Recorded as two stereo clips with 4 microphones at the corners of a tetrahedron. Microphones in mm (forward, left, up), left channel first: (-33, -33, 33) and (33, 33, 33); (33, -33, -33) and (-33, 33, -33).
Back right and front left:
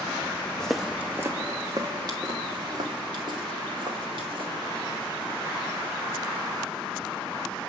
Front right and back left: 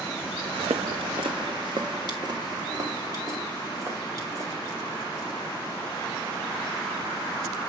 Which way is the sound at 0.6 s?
145° left.